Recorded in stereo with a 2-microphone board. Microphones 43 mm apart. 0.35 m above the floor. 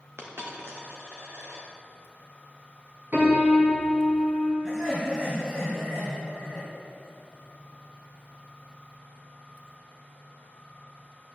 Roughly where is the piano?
Right.